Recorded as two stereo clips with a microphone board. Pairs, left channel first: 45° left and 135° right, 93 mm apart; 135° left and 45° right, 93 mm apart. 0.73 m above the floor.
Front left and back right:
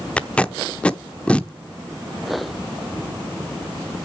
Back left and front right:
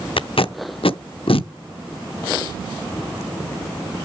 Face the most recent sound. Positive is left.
turn(degrees=125)